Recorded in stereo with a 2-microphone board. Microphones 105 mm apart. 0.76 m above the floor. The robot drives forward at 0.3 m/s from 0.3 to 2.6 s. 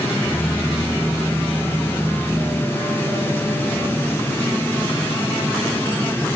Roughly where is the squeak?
No squeak in this recording.